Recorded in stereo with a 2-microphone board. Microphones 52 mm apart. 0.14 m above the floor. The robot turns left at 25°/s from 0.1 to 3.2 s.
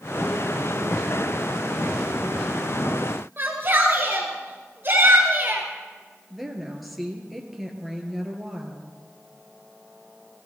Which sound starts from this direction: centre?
A woman speaking, at 6.3 s.